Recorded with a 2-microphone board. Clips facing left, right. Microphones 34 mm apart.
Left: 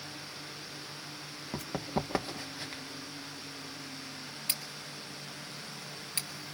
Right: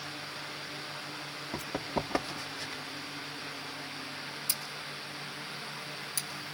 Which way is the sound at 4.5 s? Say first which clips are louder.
Right 2 dB; 45° left (ahead or behind).